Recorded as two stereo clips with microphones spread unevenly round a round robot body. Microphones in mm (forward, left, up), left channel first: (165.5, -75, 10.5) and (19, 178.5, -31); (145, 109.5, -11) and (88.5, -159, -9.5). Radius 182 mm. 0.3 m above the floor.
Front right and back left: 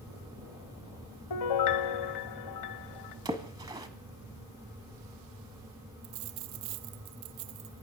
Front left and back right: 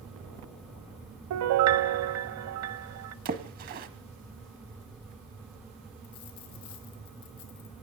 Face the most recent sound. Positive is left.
turn(degrees=130)